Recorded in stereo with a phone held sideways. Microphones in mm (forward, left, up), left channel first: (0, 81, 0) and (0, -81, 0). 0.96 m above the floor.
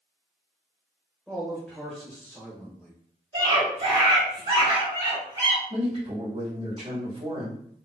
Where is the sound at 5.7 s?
35° right (ahead or behind), 2.5 m.